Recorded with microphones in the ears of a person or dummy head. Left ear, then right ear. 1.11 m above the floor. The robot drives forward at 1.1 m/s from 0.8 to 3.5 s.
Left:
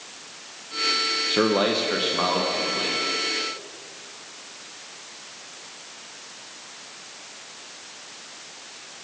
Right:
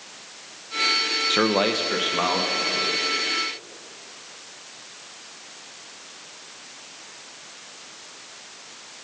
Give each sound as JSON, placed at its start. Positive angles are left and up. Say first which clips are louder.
{"t": 1.3, "sound": "a man speaking", "louder": "even", "side_deg": -35, "distance_m": 0.6}